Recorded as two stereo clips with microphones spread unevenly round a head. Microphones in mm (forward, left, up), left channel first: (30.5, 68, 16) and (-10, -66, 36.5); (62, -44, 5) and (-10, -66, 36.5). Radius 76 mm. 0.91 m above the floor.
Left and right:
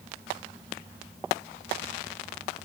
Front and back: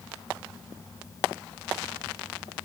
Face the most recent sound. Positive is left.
No sound to turn to.